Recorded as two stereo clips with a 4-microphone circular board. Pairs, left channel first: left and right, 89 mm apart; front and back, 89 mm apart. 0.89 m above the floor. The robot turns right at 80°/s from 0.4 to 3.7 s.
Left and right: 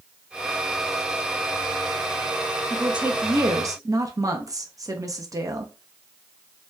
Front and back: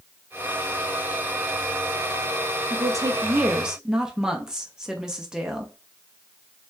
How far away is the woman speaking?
About 0.8 m.